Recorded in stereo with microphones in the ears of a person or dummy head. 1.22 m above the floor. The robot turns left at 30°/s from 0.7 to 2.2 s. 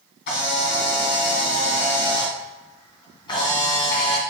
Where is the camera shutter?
70° left, 2.5 m; by 4.2 s 25° left, 2.5 m.